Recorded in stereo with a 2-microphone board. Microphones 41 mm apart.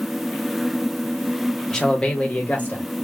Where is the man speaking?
15° left (ahead or behind), 0.9 m; by 2.9 s 45° left (ahead or behind), 1.1 m.